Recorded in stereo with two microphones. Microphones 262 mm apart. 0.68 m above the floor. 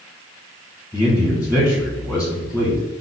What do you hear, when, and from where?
0.9 s a man speaking: 5° right (ahead or behind), 1.7 m